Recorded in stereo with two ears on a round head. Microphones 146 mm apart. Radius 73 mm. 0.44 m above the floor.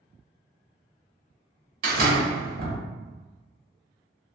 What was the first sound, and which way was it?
A door slam, 60° right (ahead or behind).